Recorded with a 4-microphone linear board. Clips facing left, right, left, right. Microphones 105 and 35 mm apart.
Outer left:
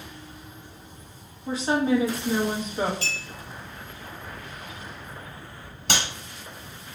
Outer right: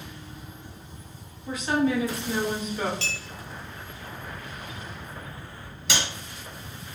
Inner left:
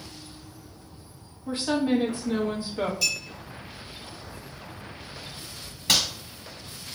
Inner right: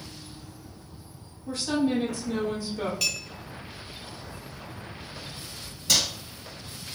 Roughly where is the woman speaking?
Left.